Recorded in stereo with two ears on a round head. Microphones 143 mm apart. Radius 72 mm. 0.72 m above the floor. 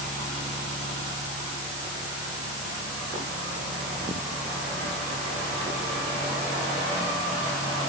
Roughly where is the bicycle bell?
No bicycle bell in this recording.